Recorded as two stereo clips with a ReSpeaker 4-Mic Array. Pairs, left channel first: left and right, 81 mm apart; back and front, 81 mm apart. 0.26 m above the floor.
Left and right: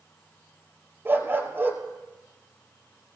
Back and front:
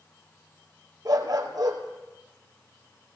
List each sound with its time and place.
1.1 s a dog barking: 30° right, 2.5 m